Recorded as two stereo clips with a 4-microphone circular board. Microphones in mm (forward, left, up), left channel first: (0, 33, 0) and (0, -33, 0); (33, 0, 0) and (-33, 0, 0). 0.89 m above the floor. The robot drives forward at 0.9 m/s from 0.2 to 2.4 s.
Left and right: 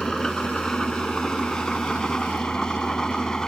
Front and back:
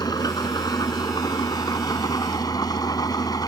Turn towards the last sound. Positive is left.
turn(degrees=10)